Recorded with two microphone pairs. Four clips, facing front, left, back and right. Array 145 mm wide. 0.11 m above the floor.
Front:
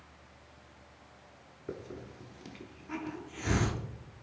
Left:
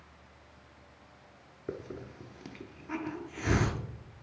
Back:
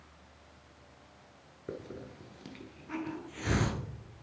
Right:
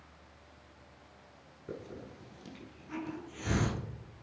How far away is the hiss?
About 1.0 m.